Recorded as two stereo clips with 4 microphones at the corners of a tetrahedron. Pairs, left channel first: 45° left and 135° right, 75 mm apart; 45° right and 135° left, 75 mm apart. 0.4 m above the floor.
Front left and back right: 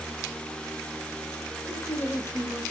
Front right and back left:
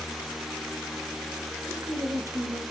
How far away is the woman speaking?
About 2 m.